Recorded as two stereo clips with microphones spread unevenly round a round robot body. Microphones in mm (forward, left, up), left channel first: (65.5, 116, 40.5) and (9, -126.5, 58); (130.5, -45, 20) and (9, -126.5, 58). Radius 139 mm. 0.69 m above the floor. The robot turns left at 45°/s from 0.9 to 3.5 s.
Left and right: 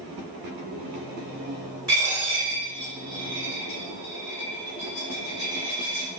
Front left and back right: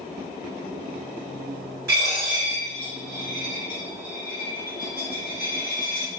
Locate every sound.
1.9 s a dropped coin: straight behind, 1.2 m; by 6.1 s 110° left, 1.2 m